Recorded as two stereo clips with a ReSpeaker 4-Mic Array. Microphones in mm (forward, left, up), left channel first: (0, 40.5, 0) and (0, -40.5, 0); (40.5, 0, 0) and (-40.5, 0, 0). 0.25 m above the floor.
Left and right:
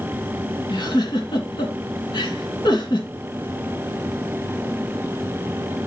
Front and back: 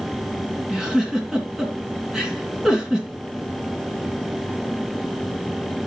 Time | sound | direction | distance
0.7 | a giggle | 95° left | 3 m